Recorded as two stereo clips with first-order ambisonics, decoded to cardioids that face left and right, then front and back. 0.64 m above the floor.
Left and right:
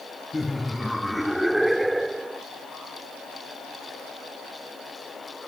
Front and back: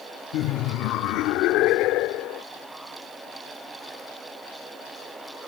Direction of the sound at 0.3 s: 10° left.